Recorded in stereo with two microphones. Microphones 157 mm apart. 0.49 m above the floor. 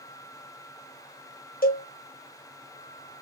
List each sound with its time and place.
1.6 s a cowbell: 65° left (ahead or behind), 1.5 m